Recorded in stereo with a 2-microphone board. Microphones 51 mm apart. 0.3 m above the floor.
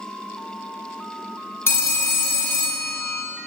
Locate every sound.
1.7 s a phone ringing: 55° left (ahead or behind), 0.8 m